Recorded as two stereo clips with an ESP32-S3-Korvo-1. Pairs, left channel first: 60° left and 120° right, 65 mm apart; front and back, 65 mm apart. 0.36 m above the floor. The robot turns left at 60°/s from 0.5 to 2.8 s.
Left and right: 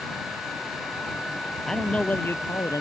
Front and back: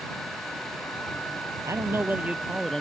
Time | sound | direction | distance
1.6 | a man speaking | 150° left | ?